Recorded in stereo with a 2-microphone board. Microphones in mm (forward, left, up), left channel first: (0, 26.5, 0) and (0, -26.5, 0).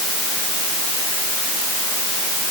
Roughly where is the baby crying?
No baby crying in this recording.